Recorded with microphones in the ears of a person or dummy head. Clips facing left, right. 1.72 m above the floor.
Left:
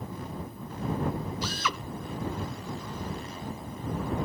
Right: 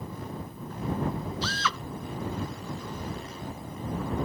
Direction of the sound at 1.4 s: 15° left (ahead or behind).